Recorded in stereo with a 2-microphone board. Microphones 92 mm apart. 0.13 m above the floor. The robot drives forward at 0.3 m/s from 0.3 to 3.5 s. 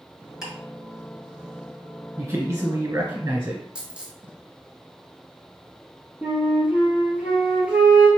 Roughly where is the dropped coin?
Centre.